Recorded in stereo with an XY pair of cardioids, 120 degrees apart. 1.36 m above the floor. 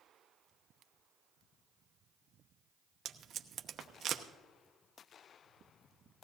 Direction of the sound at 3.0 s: 45° right.